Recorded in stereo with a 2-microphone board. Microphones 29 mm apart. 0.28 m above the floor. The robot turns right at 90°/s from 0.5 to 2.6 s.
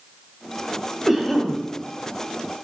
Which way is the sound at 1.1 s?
5° right.